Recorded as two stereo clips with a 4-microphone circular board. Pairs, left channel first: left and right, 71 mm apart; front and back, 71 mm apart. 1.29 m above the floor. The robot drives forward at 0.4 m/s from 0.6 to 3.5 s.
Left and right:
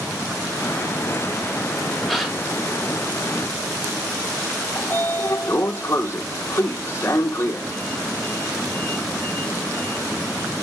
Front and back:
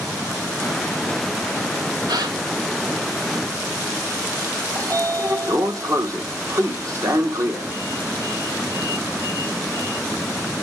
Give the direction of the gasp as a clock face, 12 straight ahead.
6 o'clock.